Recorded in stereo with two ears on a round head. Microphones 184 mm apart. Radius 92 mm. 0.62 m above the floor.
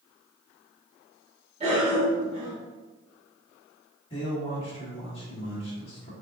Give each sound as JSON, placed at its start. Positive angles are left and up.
{"t": 1.6, "sound": "a cough", "side_deg": -30, "distance_m": 1.0}
{"t": 4.1, "sound": "a man speaking", "side_deg": 30, "distance_m": 1.4}